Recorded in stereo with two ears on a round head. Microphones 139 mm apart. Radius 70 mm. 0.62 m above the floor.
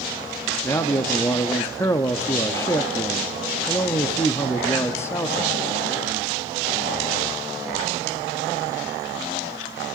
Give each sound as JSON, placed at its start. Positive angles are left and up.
{"t": 0.6, "sound": "a man speaking", "side_deg": 20, "distance_m": 0.5}